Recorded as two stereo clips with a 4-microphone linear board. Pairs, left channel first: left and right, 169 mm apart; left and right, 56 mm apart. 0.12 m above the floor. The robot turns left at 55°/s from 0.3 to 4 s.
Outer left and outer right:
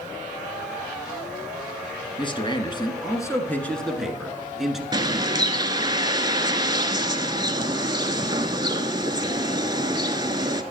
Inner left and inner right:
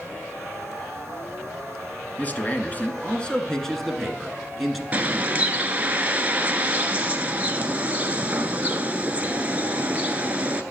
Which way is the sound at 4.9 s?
25° right (ahead or behind).